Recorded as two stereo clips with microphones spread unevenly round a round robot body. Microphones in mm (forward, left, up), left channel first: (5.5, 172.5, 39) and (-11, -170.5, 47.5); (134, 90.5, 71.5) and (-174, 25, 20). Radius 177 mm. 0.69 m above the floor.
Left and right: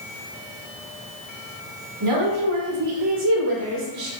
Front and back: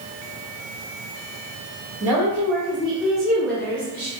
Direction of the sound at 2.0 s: 95° right.